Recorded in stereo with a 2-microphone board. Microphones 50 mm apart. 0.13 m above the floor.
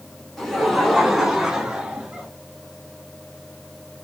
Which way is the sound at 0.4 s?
10° left (ahead or behind).